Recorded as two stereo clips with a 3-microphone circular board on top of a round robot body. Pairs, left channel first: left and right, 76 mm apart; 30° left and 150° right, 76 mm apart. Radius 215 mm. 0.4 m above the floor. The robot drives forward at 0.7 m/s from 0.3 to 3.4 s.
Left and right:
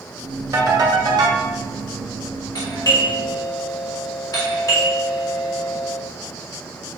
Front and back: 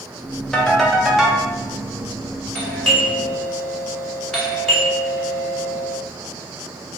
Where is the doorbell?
95° left, 3 m; by 6.0 s 110° left, 3.5 m.